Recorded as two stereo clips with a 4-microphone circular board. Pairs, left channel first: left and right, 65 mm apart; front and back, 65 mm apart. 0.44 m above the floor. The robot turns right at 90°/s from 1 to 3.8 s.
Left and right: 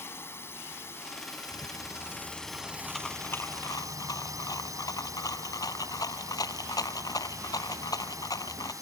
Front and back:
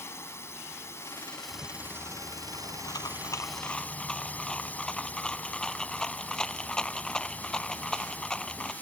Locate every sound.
0.0 s a drone: 45° left; by 8.8 s 65° right
1.5 s a rattle: 130° right; by 8.7 s 75° left